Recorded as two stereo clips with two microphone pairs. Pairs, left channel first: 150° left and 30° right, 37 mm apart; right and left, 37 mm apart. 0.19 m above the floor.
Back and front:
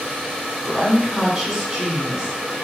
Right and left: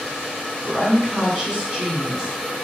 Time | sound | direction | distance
0.6 | a woman speaking | 50° left | 1.4 m